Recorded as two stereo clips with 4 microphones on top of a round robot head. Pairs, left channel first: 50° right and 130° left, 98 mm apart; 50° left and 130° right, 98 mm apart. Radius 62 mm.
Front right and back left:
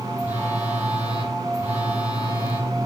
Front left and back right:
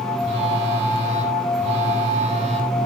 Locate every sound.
0.2 s a phone buzzing: 155° right, 9 m